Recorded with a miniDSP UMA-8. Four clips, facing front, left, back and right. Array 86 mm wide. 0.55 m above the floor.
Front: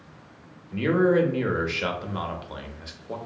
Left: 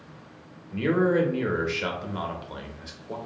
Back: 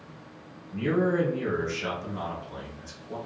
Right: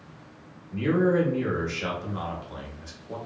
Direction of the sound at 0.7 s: 20° left.